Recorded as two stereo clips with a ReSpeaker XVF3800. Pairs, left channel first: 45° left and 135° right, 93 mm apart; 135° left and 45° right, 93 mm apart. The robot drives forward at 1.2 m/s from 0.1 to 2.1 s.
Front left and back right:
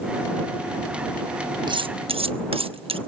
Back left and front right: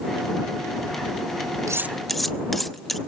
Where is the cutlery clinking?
100° right, 0.6 m; by 3.0 s 135° right, 0.9 m.